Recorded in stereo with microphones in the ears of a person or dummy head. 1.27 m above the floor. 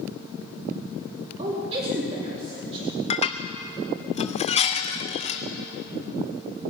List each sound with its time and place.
1.4 s a woman speaking: 35° right (ahead or behind), 2.5 m
3.1 s dishes clattering: 30° left (ahead or behind), 0.8 m